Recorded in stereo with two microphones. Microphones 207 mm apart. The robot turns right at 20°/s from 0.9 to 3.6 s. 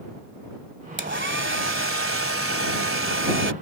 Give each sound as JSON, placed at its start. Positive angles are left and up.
{"t": 1.0, "sound": "a hair dryer", "azimuth_deg": -120}